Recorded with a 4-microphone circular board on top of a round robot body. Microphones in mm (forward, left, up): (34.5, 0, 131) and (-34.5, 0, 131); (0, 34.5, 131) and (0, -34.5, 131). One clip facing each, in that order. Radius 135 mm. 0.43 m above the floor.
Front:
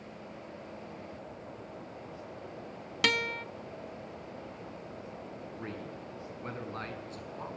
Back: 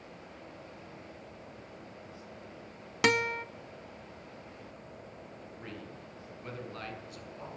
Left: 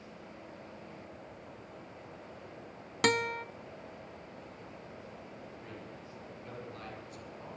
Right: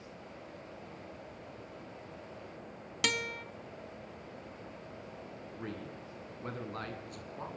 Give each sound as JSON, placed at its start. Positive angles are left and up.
{"t": 3.0, "sound": "a guitar", "azimuth_deg": 120, "distance_m": 1.1}
{"t": 5.5, "sound": "a man speaking", "azimuth_deg": -55, "distance_m": 7.0}